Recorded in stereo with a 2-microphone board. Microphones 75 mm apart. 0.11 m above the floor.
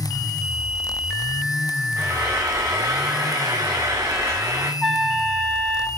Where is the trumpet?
Centre (ahead or behind), 4 m.